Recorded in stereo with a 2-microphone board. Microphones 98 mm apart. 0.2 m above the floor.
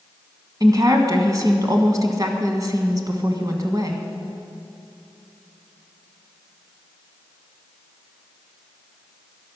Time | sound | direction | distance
0.6 | a woman speaking | 40° right (ahead or behind) | 1.5 m